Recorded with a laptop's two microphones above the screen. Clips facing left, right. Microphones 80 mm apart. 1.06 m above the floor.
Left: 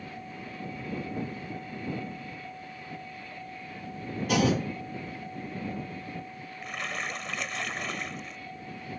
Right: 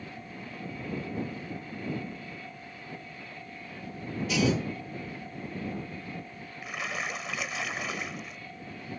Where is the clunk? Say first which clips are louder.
Left 2 dB; 55° left (ahead or behind).